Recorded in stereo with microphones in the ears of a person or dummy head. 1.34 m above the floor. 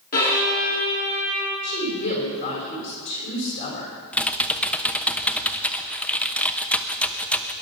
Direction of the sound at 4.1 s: 10° left (ahead or behind).